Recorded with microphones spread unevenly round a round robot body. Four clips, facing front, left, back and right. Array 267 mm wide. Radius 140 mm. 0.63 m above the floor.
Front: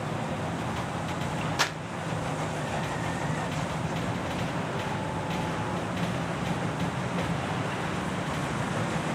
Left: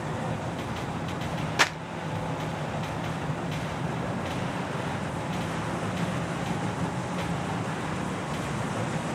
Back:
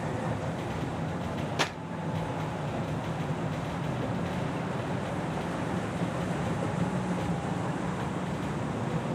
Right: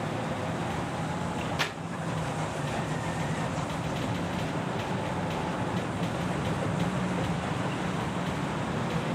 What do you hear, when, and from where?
1.6 s crumpling: 145° left, 1.3 m